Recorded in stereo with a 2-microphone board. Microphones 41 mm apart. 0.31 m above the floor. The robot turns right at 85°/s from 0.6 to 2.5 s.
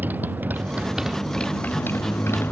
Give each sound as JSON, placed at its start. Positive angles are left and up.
{"t": 0.0, "sound": "a motorcycle", "azimuth_deg": -50}